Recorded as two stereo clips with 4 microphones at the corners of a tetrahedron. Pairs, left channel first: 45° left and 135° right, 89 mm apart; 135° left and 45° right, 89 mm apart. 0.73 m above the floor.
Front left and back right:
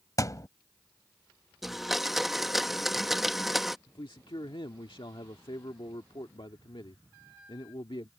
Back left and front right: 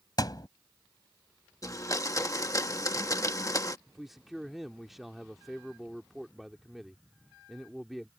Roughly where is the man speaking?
Ahead left.